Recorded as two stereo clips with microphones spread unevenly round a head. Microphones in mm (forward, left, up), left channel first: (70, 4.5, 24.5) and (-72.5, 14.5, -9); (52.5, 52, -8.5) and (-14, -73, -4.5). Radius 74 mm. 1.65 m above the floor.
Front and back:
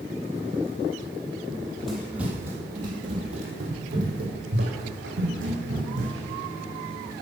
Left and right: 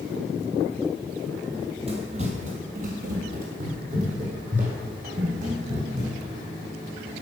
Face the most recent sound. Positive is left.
turn(degrees=-165)